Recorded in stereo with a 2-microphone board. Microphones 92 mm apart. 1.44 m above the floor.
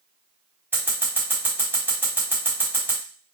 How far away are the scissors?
About 1.5 m.